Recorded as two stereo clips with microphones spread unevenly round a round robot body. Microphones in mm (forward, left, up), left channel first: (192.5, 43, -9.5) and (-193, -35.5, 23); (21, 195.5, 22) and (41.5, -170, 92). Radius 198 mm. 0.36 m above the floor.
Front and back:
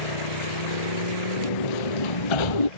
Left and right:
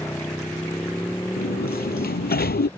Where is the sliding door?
25° left.